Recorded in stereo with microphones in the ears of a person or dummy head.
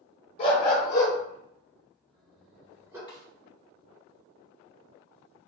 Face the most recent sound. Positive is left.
turn(degrees=20)  # may be behind; listen again after turning